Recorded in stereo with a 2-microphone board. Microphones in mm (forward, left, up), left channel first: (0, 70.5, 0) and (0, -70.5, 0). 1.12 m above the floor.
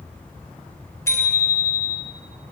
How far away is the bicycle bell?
About 3.5 m.